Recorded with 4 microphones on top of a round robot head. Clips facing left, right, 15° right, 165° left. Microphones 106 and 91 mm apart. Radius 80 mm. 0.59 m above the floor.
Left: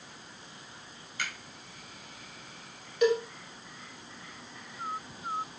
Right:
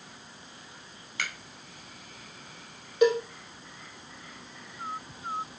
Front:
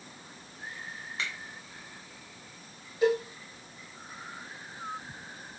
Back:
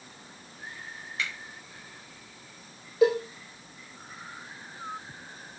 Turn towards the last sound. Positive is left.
turn(degrees=-160)